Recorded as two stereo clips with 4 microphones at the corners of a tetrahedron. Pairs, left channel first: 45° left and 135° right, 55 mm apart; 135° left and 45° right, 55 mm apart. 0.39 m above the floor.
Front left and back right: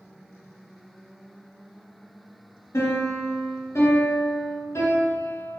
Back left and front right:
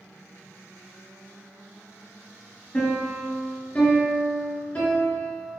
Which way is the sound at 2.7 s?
70° left.